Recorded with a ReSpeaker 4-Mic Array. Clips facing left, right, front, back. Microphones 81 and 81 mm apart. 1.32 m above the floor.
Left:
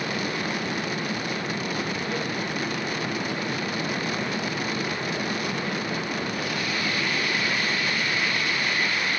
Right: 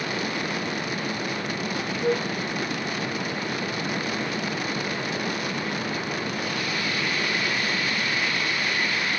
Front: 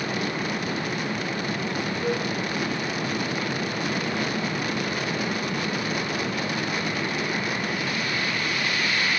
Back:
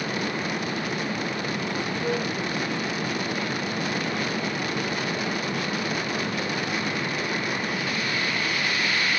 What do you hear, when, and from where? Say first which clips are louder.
2.0 s a flute: right 5 dB, even; 80° right, 1.9 m